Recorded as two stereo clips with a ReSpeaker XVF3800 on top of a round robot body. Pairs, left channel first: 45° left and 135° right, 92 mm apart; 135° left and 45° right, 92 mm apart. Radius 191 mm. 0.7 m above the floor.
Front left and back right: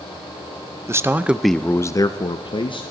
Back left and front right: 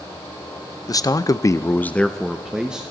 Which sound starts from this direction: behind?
A man speaking, at 0.9 s.